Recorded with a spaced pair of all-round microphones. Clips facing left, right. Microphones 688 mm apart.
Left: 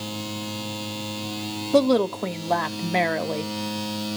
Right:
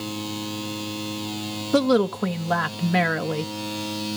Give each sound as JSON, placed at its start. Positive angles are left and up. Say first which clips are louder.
{"t": 1.7, "sound": "a woman speaking", "louder": "even", "side_deg": -45, "distance_m": 0.6}